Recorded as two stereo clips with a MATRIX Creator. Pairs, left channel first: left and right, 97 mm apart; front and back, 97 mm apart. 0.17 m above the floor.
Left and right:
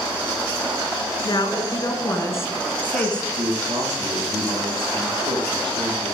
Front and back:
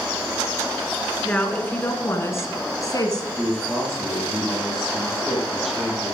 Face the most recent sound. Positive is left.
turn(degrees=-95)